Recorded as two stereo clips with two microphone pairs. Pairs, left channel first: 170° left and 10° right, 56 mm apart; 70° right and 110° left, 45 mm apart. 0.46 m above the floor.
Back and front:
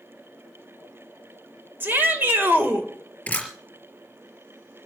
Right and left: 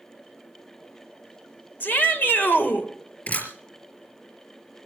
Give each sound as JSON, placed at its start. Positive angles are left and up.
{"t": 1.8, "sound": "a shout", "azimuth_deg": -50, "distance_m": 2.0}
{"t": 3.3, "sound": "a camera shutter", "azimuth_deg": -125, "distance_m": 3.5}